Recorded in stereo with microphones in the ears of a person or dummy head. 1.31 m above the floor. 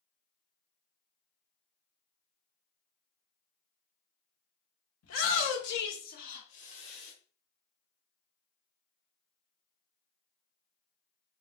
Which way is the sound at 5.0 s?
75° left (ahead or behind).